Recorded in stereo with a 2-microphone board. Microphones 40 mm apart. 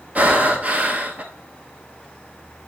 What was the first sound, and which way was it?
Breathing, 35° right (ahead or behind).